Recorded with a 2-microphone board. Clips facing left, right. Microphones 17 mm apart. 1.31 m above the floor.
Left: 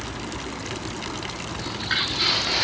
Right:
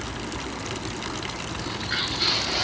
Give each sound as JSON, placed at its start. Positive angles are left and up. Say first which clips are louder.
{"t": 1.6, "sound": "footsteps", "louder": "left 3 dB", "side_deg": 75, "distance_m": 6.0}